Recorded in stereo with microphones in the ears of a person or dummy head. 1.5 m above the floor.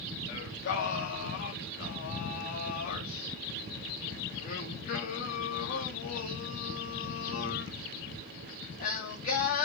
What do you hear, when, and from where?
0.3 s singing: 45° left (ahead or behind), 2.5 m